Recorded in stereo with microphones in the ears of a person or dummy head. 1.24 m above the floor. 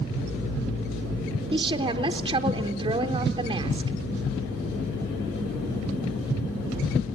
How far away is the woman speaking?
About 0.8 m.